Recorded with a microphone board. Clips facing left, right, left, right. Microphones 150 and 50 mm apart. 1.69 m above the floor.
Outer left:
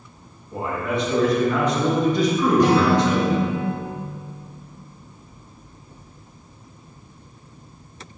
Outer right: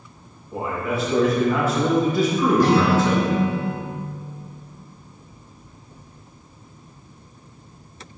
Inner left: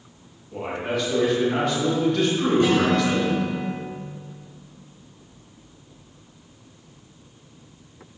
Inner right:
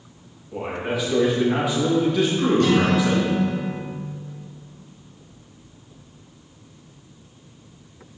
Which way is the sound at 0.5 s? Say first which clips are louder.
Even, even; 5° right (ahead or behind).